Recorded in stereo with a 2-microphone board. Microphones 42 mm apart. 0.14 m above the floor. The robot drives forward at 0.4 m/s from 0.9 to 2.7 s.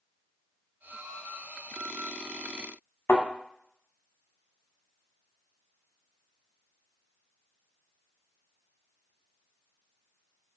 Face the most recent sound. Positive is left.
turn(degrees=80)